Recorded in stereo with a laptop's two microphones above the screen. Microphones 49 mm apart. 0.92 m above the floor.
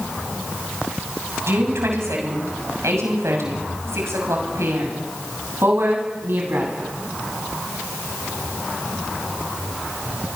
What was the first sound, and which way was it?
A woman speaking, 70° right (ahead or behind).